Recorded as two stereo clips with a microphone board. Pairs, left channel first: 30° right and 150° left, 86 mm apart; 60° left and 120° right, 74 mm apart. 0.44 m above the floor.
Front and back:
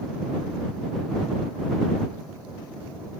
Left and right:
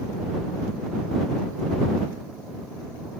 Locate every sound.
Only background noise.